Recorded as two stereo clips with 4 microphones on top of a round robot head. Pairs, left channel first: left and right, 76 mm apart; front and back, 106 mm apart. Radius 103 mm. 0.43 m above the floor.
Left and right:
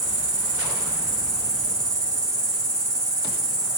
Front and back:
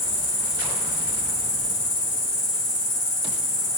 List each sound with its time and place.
0.0 s an insect: 45° right, 3.5 m